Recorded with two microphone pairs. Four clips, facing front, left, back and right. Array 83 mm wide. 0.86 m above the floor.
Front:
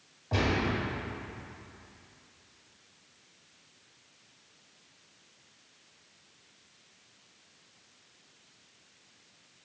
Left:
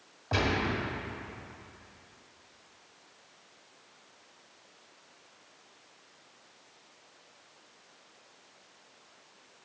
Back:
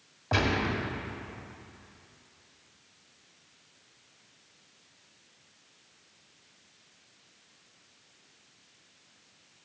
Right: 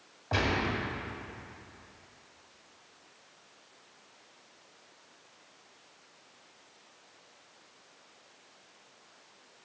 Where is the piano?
I don't hear a piano.